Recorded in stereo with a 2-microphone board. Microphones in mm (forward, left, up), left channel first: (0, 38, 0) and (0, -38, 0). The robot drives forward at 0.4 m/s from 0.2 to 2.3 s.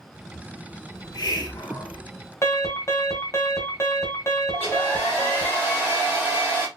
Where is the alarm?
35° left (ahead or behind), 0.9 m.